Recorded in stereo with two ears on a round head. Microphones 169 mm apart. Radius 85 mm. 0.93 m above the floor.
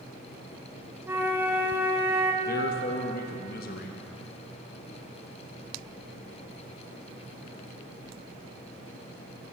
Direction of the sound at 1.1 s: 10° right (ahead or behind).